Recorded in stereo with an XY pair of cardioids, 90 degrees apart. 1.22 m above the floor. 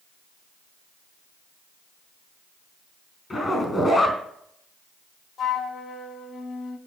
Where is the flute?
60° left, 1.7 m.